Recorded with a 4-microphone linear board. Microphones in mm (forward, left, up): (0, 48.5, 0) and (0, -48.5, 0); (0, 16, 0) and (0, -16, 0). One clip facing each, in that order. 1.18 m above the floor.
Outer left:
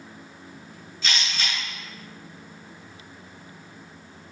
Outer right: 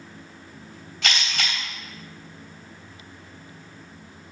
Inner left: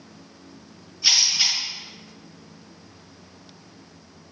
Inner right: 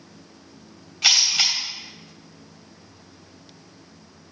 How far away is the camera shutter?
About 3 m.